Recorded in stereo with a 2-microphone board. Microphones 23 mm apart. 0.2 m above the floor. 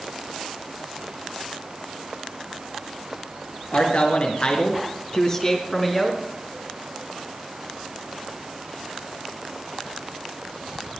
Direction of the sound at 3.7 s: 60° left (ahead or behind).